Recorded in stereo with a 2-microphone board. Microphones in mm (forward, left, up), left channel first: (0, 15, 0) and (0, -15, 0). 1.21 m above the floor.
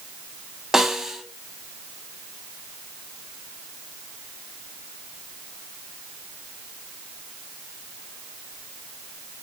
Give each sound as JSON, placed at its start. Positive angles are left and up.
{"t": 0.7, "sound": "a snare drum", "side_deg": -15, "distance_m": 1.6}